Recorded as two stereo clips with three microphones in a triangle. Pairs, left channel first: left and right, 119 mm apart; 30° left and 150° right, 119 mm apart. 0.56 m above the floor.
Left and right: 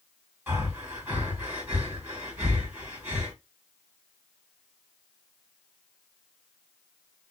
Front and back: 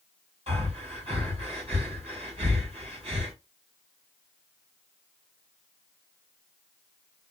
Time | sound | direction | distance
0.5 | breathing | 165° right | 2 m